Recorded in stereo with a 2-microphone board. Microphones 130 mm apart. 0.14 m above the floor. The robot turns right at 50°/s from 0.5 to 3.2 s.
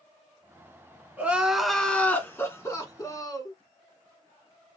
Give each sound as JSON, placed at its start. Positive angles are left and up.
{"t": 1.2, "sound": "crying", "side_deg": -10, "distance_m": 1.5}